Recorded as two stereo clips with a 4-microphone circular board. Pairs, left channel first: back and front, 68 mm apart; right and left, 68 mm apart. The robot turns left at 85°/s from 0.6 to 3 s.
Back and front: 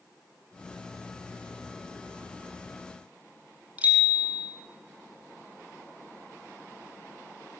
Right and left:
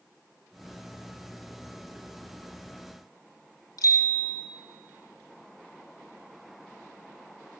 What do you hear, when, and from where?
3.8 s a bicycle bell: 65° right, 3.5 m